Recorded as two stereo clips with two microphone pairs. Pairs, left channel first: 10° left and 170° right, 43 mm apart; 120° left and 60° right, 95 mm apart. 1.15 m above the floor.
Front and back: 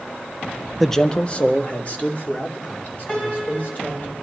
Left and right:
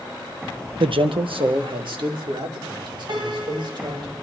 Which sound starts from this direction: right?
A man speaking, at 0.8 s.